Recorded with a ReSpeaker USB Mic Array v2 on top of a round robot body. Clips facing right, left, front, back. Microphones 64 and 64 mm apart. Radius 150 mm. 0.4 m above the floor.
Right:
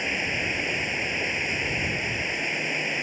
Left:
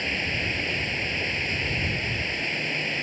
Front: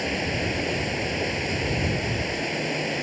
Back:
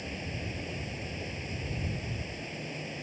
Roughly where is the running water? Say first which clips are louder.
Right 1 dB, front 12 dB; ahead.